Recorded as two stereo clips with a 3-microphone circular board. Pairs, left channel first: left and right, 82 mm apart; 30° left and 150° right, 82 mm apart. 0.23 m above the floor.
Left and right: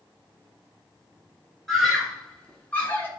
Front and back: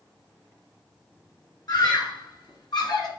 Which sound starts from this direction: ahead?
A scream, at 1.7 s.